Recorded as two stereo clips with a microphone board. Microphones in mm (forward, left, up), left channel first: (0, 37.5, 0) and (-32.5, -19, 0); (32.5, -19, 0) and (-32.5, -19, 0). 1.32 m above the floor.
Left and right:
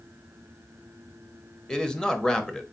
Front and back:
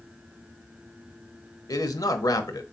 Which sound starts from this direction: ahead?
A man speaking, at 1.7 s.